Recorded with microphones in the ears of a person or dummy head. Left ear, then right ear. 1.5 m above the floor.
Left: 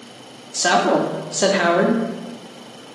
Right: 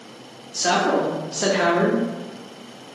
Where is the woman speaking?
20° left (ahead or behind), 0.6 m.